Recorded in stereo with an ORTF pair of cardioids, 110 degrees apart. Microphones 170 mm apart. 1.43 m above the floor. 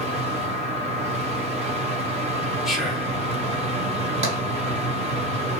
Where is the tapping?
40° right, 2 m.